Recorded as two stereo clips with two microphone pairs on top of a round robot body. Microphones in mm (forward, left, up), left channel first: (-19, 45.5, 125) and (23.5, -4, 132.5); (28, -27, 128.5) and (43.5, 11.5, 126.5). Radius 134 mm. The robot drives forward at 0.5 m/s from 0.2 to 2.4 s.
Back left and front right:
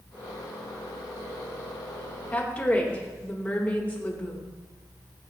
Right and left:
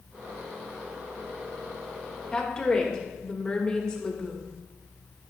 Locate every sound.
2.3 s a woman speaking: 175° right, 1.9 m